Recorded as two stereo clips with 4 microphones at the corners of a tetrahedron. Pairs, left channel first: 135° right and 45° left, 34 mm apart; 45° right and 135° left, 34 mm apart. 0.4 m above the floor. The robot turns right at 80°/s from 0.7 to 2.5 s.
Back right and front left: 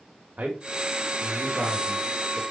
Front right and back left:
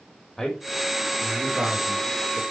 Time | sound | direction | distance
0.4 | a man speaking | 15° left | 2.0 m